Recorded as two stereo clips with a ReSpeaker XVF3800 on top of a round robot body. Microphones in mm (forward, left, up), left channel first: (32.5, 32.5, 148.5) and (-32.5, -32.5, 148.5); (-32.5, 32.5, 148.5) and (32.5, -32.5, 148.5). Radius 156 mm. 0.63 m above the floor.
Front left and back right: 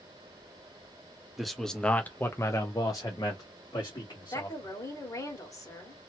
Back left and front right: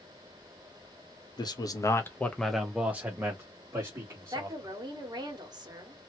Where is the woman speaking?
5° right, 1.6 m.